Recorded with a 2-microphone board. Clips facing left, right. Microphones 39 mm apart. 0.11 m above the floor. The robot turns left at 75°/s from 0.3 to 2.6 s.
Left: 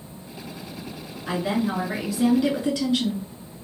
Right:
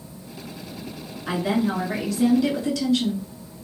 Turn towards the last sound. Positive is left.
turn(degrees=25)  # may be behind; listen again after turning